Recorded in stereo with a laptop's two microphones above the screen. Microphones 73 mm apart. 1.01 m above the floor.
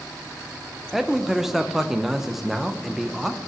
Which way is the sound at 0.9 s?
5° right (ahead or behind).